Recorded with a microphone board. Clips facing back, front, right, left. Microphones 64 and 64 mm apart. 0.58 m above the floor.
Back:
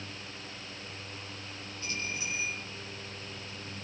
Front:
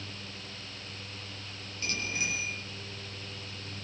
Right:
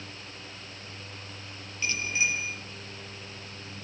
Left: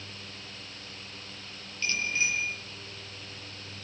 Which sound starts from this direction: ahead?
A bicycle bell, at 1.8 s.